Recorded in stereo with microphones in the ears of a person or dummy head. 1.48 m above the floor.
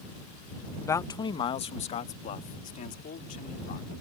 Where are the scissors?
I don't hear scissors.